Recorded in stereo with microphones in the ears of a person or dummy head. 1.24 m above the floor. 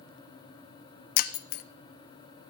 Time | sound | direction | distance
1.2 | breaking glass | 55° left (ahead or behind) | 0.5 m